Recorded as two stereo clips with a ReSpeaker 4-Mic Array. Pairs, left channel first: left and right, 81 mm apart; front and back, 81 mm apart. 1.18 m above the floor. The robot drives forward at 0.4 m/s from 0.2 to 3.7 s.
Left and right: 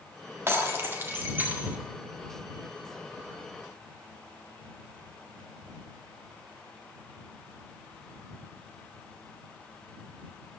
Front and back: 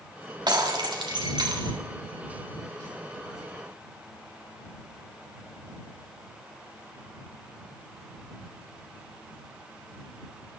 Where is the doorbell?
I don't hear a doorbell.